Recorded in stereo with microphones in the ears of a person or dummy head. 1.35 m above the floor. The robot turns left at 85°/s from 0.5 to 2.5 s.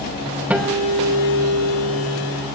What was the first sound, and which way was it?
A guitar, 170° right.